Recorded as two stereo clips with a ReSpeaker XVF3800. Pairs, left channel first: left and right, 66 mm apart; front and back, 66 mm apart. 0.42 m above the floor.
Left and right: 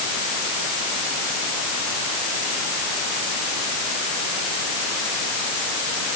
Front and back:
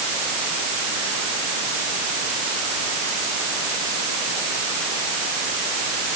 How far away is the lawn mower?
No lawn mower in this recording.